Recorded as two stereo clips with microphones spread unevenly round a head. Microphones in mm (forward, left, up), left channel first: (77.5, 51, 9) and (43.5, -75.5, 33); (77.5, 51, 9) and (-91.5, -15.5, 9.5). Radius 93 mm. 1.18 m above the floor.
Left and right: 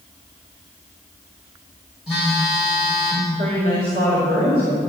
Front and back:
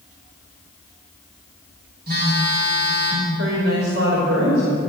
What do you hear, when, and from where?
2.1 s a phone buzzing: 170° left, 4 m
3.4 s a woman speaking: 140° right, 4.5 m